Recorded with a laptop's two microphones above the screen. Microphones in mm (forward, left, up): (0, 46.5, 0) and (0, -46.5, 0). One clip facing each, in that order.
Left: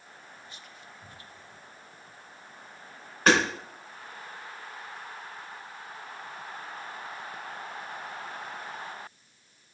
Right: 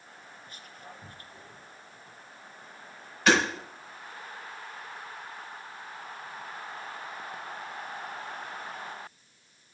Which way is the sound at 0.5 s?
45° right (ahead or behind).